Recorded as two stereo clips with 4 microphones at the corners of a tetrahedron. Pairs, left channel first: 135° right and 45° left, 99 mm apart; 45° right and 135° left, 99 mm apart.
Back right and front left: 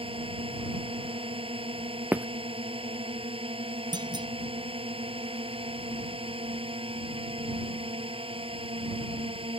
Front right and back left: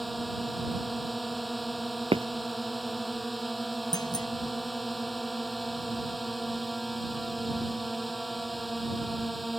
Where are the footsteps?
115° left.